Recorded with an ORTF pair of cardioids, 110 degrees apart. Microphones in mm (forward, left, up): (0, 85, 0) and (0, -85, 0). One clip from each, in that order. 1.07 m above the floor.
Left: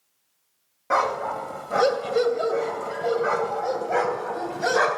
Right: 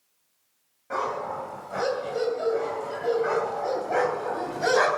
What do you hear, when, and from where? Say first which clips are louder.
0.9 s a dog barking: left 6 dB; 55° left, 2.5 m; by 5.0 s straight ahead, 3 m